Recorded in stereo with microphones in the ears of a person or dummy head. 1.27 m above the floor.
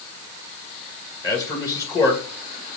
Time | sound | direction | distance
1.2 | a man speaking | 20° left (ahead or behind) | 1.5 m